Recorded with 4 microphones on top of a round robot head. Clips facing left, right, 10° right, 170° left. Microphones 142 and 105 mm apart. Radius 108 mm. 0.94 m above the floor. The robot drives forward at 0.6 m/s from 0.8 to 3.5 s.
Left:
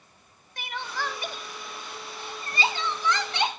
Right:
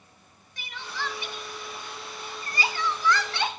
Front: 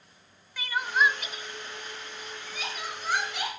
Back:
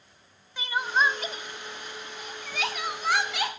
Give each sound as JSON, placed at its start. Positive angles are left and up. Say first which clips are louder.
{"t": 0.6, "sound": "crying", "louder": "left 3 dB, even", "azimuth_deg": 110, "distance_m": 1.0}